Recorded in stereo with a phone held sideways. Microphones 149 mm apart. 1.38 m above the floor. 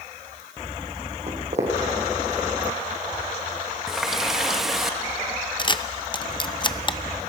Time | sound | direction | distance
1.3 | footsteps | 50° right (ahead or behind) | 4 m
3.9 | a running tap | centre (ahead or behind) | 0.8 m
5.6 | a camera shutter | 30° left (ahead or behind) | 0.6 m